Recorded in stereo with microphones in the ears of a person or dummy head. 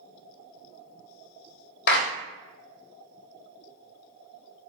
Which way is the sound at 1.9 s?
55° left (ahead or behind).